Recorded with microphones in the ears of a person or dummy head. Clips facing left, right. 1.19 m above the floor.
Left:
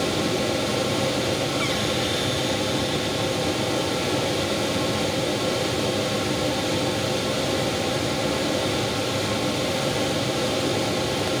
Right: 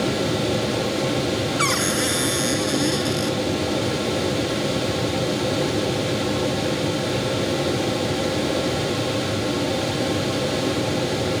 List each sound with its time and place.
1.6 s a cupboard door: 65° right (ahead or behind)